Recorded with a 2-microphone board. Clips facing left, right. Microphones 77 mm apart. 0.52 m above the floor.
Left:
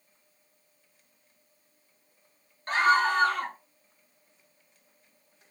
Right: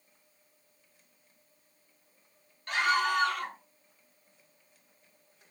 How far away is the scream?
About 1.0 m.